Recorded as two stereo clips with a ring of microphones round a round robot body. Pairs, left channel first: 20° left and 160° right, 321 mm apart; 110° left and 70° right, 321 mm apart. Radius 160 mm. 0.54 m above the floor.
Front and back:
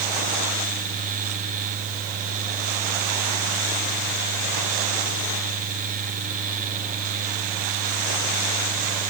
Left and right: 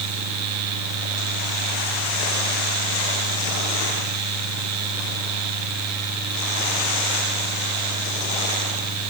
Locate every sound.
Only background noise.